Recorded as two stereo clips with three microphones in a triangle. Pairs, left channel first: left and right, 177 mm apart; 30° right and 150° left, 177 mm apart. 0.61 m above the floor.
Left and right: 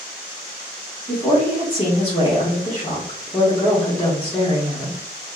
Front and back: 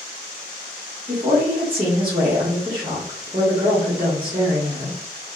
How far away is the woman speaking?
About 1.0 m.